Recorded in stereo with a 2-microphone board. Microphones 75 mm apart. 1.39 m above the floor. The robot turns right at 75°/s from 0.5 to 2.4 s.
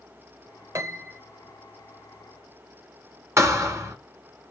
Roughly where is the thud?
Right.